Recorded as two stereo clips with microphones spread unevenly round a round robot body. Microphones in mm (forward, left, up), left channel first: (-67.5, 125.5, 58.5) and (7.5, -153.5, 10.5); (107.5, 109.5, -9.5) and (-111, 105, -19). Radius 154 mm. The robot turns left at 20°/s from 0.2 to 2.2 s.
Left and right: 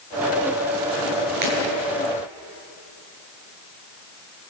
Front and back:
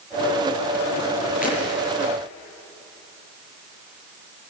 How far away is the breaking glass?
About 6.5 m.